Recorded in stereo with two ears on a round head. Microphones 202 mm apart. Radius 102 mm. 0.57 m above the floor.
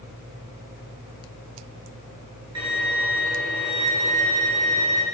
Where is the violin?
80° right, 2 m.